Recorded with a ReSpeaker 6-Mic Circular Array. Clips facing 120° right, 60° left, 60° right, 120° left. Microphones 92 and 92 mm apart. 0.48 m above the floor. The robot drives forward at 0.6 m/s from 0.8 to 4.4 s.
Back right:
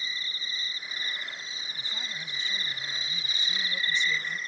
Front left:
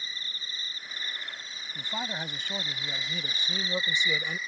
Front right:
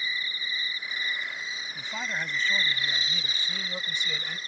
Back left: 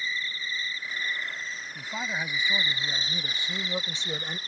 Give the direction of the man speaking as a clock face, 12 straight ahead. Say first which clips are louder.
Front left 9 dB, back left 1 dB; 11 o'clock.